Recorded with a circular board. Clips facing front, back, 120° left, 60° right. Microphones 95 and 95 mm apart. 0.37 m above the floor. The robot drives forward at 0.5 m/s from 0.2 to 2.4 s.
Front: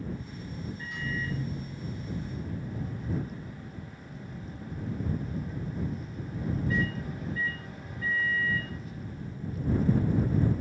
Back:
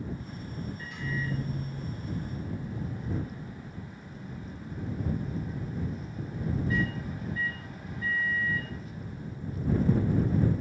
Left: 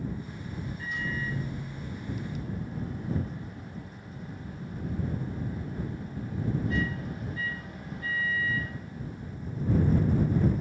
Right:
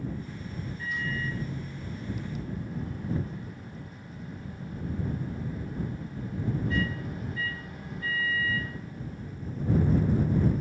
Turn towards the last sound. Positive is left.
turn(degrees=95)